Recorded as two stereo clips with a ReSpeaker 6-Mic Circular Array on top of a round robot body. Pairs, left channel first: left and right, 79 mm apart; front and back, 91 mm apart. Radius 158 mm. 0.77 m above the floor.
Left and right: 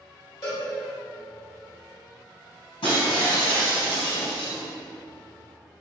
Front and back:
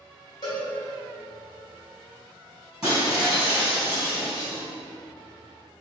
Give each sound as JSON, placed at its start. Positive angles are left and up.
{"t": 0.4, "sound": "a cowbell", "azimuth_deg": 50, "distance_m": 1.6}
{"t": 2.8, "sound": "breaking glass", "azimuth_deg": 100, "distance_m": 1.9}